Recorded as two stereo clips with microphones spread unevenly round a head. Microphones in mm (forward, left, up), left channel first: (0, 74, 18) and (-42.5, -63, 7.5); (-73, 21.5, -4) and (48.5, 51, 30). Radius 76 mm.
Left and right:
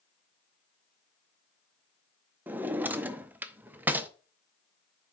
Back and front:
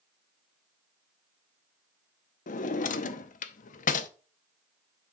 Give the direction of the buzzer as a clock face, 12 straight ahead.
No buzzer in this recording.